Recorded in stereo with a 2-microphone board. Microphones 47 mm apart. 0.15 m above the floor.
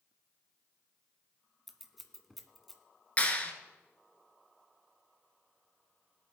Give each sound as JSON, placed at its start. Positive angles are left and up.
{"t": 1.7, "sound": "scissors", "side_deg": 0, "distance_m": 1.2}
{"t": 3.2, "sound": "a clap", "side_deg": 30, "distance_m": 1.6}